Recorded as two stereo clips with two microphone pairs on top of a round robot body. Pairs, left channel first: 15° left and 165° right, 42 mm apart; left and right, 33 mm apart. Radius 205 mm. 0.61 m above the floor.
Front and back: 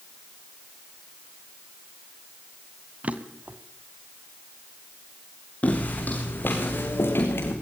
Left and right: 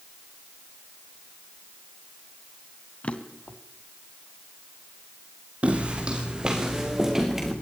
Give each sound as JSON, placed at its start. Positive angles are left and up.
{"t": 3.0, "sound": "a drawer", "azimuth_deg": 145, "distance_m": 1.6}
{"t": 5.6, "sound": "footsteps", "azimuth_deg": -40, "distance_m": 3.5}